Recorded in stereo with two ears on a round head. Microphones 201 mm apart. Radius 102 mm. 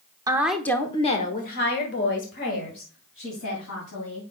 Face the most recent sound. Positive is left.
turn(degrees=70)  # may be behind; listen again after turning